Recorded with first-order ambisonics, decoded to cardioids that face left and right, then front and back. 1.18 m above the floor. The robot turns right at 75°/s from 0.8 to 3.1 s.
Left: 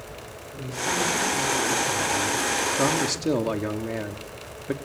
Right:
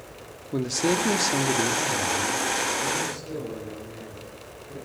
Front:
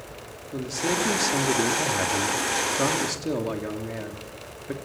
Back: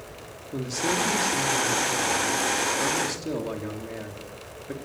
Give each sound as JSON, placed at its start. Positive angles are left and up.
{"t": 0.5, "sound": "a man speaking", "azimuth_deg": -95, "distance_m": 3.0}